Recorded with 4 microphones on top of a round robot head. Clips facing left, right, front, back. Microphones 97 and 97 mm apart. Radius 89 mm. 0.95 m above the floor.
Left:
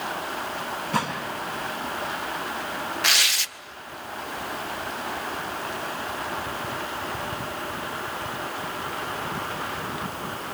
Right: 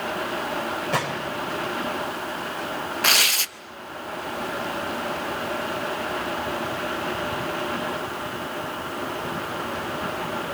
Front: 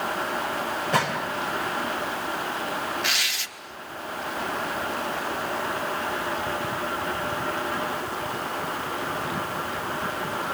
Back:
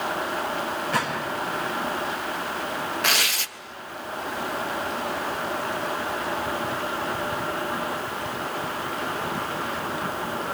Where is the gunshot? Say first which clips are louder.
Left 2 dB, front 3 dB; 70° right, 2.5 m.